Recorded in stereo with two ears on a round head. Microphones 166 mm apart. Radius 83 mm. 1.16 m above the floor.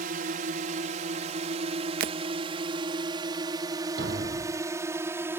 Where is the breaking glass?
50° right (ahead or behind).